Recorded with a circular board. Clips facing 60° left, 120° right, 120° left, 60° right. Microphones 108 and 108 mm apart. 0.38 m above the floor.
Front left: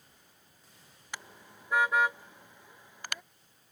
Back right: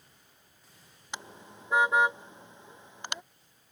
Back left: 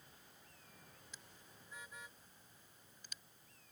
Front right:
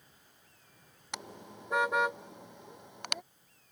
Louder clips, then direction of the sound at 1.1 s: Back right 3 dB, front right 22 dB; 50° right.